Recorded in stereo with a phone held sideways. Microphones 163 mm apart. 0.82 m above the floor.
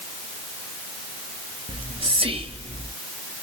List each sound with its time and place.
1.7 s whispering: 35° right (ahead or behind), 0.8 m